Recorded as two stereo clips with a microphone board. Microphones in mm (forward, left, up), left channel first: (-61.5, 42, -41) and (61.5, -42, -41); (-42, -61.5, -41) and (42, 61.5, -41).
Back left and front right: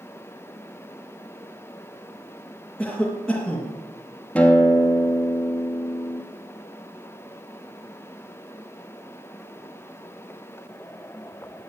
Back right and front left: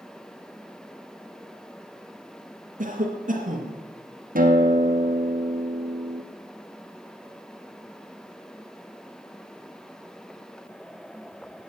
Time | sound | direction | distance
2.8 | a cough | 60° left | 2.5 m
4.3 | a guitar | 65° left | 2.5 m